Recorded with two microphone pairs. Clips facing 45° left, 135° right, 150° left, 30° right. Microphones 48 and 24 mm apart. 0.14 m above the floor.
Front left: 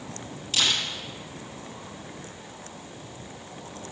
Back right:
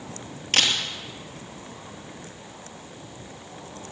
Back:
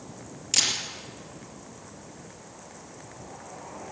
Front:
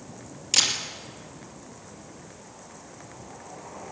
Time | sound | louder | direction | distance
0.5 | a camera shutter | back right 3 dB, front 2 dB | 110° right | 2.5 m